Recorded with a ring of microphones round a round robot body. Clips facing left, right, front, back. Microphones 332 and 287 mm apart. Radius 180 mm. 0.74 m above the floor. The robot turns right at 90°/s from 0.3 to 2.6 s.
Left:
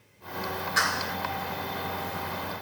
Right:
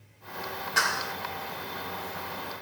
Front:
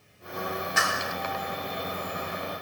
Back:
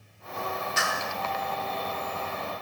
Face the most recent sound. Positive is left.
turn(degrees=125)